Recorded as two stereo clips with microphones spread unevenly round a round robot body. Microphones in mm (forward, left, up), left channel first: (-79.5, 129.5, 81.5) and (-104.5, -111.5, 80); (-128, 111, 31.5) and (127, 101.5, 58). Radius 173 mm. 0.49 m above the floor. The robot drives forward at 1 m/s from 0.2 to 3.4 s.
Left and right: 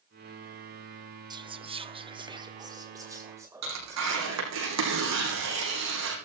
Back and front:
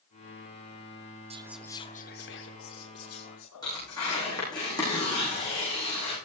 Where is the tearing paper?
105° right, 6 m.